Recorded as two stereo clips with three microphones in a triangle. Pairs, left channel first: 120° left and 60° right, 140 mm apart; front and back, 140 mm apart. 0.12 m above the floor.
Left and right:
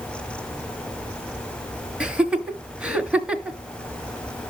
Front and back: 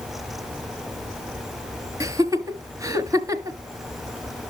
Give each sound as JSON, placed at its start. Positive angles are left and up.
{"t": 2.0, "sound": "laughter", "azimuth_deg": -135, "distance_m": 1.4}